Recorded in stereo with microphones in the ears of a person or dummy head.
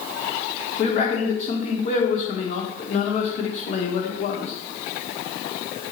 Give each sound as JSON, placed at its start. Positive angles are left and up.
{"t": 0.8, "sound": "a man speaking", "side_deg": 35, "distance_m": 1.0}